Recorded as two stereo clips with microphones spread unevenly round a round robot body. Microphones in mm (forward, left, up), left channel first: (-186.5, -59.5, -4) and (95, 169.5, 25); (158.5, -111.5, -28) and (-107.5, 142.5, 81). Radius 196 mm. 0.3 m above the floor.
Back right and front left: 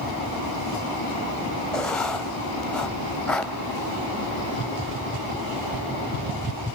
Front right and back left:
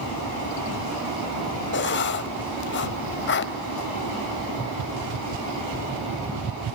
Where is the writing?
60° right, 0.7 m.